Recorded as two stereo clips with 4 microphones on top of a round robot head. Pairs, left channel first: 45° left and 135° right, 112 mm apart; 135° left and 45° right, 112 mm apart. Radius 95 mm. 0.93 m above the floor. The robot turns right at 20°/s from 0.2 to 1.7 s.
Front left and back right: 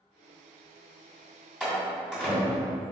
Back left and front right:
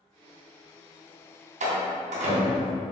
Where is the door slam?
50° right, 2 m.